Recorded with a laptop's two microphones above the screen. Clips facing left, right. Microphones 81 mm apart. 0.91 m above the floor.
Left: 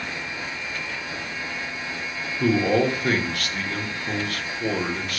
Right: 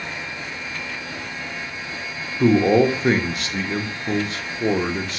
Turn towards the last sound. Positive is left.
turn(degrees=-20)  # may be behind; listen again after turning